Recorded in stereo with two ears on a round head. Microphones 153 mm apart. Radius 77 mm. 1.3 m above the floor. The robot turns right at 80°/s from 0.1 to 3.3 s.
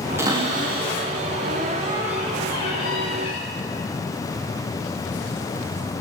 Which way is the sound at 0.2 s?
165° right.